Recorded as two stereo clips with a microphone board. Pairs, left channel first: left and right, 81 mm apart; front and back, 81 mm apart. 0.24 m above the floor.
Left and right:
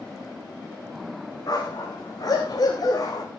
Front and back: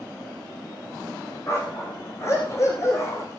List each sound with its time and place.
1.5 s a dog barking: 55° left, 5.5 m